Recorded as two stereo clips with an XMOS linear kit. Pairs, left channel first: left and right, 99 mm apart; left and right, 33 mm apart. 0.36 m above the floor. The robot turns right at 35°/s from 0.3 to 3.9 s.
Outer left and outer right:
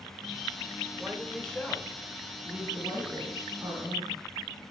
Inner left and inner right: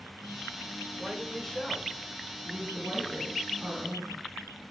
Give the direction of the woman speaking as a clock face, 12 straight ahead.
7 o'clock.